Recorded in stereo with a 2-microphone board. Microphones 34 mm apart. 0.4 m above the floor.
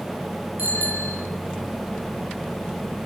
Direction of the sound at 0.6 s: 80° right.